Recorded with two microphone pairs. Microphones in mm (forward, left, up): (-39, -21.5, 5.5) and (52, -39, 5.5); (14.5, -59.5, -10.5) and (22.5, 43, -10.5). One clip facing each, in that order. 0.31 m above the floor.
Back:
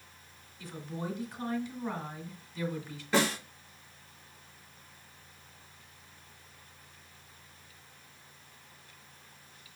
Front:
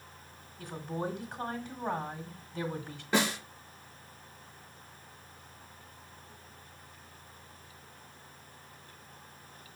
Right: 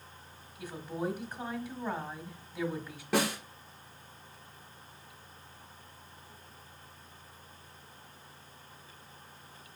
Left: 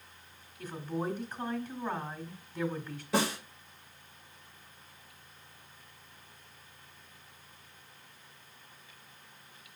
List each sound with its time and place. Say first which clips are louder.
0.6 s a woman speaking: front 3 dB, left 1 dB; 15° right, 1.4 m
3.1 s a snare drum: back 1 dB, even; 85° right, 2.5 m